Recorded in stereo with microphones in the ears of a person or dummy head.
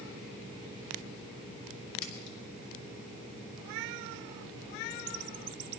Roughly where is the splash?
Left.